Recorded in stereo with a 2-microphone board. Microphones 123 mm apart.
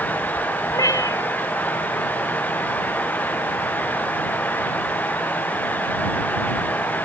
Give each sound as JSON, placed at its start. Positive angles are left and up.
{"t": 0.7, "sound": "a cat meowing", "side_deg": 30}